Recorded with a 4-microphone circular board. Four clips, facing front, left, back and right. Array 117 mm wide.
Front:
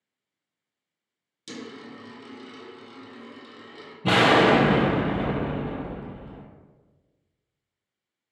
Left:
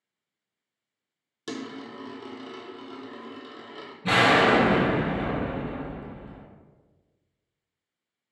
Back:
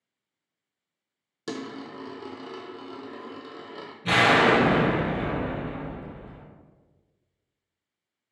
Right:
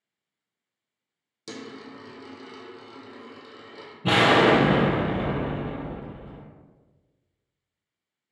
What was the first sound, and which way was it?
A dropped coin, 160° left.